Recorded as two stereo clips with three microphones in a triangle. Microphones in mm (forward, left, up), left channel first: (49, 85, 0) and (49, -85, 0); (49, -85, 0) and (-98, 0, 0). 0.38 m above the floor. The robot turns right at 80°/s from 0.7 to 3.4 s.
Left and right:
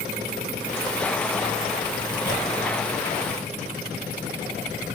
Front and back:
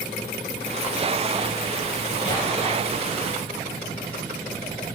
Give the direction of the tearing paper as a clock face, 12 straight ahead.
10 o'clock.